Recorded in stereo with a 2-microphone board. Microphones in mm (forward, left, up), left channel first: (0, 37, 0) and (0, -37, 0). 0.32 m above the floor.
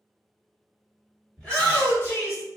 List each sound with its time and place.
1.4 s a shout: 10° left (ahead or behind), 1.5 m; by 2.4 s 35° left (ahead or behind), 1.7 m